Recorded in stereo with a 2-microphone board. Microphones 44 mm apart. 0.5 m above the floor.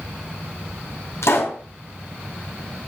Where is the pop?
75° left (ahead or behind), 2.5 m.